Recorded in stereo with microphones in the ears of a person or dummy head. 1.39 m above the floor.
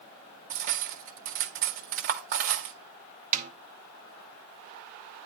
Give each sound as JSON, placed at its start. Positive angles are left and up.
{"t": 0.5, "sound": "cutlery clinking", "side_deg": -45, "distance_m": 0.8}
{"t": 3.3, "sound": "a snare drum", "side_deg": -40, "distance_m": 0.9}